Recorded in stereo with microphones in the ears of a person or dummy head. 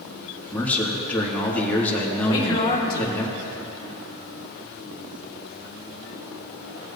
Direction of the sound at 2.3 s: 20° left (ahead or behind).